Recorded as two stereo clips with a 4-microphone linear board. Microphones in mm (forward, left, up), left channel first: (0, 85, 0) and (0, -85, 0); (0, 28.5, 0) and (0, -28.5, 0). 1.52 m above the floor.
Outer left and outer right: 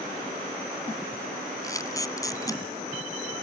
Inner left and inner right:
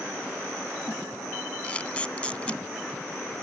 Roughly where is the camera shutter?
Centre.